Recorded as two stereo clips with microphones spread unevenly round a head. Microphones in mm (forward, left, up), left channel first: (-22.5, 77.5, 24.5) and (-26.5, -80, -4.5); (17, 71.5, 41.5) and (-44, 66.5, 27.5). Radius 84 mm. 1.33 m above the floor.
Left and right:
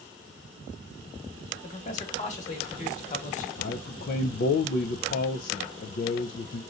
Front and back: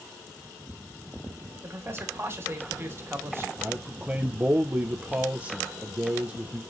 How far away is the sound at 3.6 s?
About 0.5 m.